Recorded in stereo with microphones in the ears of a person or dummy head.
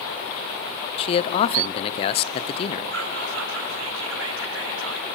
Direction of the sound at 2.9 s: 75° right (ahead or behind).